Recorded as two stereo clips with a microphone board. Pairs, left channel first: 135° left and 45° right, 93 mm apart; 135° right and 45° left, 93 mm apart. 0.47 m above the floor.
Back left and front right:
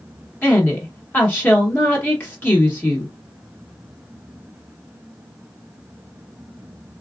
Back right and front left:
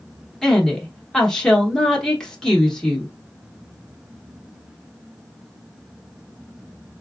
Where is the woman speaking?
155° left, 1.0 m.